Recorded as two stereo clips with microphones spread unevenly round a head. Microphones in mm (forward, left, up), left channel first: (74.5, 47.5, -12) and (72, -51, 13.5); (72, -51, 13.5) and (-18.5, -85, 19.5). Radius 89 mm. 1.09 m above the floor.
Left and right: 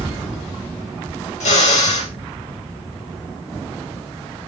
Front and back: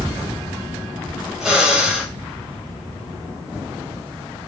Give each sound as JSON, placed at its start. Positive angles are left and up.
{"t": 1.4, "sound": "a drill", "azimuth_deg": 115, "distance_m": 3.0}